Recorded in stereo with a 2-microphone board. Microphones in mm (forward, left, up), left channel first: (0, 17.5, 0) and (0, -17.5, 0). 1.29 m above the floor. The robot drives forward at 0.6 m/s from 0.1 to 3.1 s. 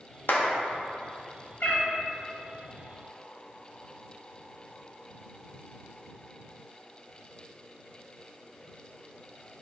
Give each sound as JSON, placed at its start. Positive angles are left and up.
{"t": 0.3, "sound": "a clap", "side_deg": 70, "distance_m": 0.6}
{"t": 1.6, "sound": "a cat meowing", "side_deg": 55, "distance_m": 0.8}